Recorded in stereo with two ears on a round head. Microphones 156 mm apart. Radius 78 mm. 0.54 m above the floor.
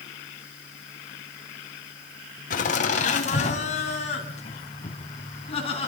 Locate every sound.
2.5 s laughter: 50° left (ahead or behind), 3 m; by 5.9 s 35° left (ahead or behind), 5.5 m